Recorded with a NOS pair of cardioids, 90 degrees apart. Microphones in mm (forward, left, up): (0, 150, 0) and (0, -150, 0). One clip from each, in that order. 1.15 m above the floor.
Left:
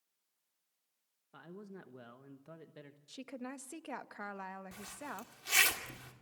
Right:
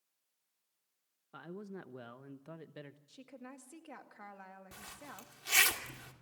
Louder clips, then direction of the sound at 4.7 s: Left 4 dB; 5° right.